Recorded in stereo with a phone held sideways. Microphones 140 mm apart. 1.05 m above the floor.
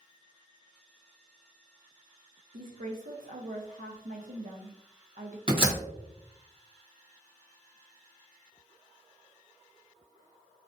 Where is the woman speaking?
70° right (ahead or behind), 0.6 m.